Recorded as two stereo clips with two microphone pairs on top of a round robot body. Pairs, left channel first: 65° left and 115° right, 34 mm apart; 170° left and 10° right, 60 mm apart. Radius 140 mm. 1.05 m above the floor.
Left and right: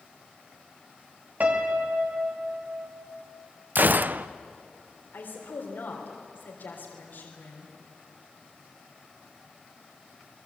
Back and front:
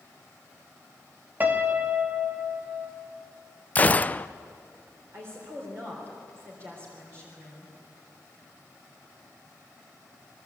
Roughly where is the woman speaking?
Ahead left.